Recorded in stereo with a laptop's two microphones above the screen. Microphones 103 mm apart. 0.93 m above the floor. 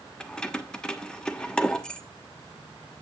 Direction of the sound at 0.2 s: 5° left (ahead or behind).